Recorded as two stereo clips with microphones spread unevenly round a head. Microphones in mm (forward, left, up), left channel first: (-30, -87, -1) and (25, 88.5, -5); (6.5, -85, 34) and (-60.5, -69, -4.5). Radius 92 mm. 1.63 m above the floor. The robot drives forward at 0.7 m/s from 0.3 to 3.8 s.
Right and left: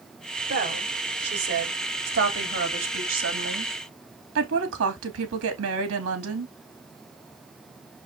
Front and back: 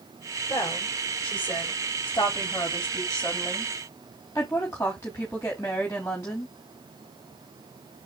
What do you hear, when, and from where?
0.5 s a woman speaking: 35° left, 5 m; by 6.5 s 60° left, 3.5 m